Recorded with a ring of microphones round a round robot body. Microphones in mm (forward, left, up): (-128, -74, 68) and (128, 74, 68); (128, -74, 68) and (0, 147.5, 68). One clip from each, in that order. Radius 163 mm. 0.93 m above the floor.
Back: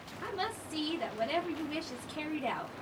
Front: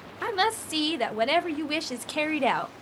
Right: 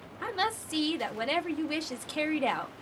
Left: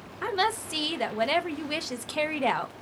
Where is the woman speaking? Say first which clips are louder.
Front 11 dB, left 4 dB; 30° left, 0.6 m.